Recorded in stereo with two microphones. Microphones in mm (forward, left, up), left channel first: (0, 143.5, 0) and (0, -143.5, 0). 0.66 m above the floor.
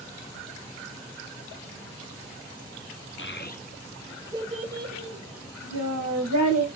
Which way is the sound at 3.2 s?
45° left (ahead or behind).